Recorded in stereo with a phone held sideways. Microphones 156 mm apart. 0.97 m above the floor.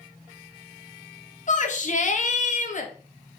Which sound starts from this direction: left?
A shout, at 1.5 s.